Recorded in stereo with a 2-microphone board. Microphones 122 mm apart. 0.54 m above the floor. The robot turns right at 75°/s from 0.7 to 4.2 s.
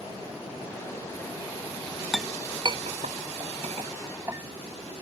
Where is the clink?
Centre (ahead or behind); by 4.9 s 25° right (ahead or behind).